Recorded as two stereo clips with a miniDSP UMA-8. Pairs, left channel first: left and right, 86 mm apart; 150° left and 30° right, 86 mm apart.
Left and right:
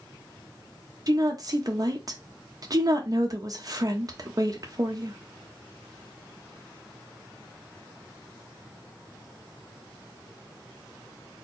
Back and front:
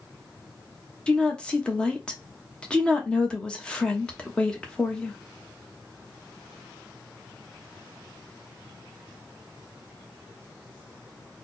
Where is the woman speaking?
130° right, 1.0 m.